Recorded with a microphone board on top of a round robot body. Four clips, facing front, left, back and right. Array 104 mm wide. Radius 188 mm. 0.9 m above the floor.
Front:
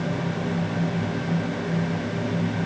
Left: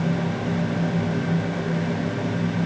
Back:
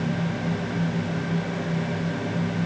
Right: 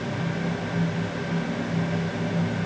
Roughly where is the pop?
I don't hear a pop.